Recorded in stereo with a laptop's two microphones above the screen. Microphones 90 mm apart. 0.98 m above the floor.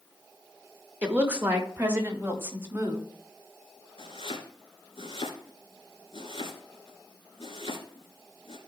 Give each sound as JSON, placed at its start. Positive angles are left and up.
{"t": 1.0, "sound": "a woman speaking", "side_deg": -15, "distance_m": 1.7}
{"t": 4.0, "sound": "chopping", "side_deg": 75, "distance_m": 2.5}